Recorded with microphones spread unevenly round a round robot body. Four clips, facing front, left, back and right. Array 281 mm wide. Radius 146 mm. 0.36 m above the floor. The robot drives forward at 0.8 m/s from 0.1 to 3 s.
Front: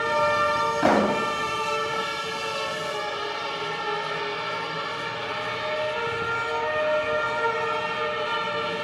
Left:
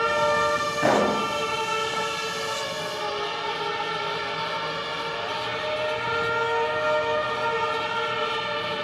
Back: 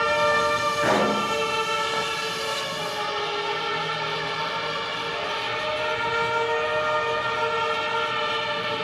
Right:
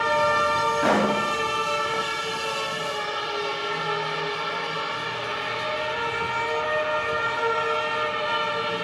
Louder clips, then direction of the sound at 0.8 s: Left 3 dB, front 2 dB; 25° left.